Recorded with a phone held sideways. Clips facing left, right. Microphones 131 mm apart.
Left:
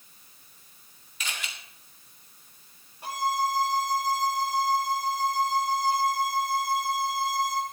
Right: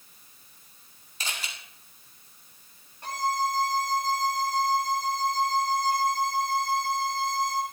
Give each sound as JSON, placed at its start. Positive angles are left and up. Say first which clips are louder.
{"t": 1.2, "sound": "a camera shutter", "louder": "even", "side_deg": -35, "distance_m": 2.0}
{"t": 3.0, "sound": "a violin", "louder": "even", "side_deg": 10, "distance_m": 1.4}